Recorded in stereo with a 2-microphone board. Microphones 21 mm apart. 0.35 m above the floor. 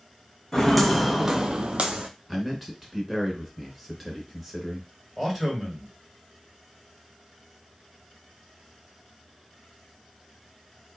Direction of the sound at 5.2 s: 5° right (ahead or behind).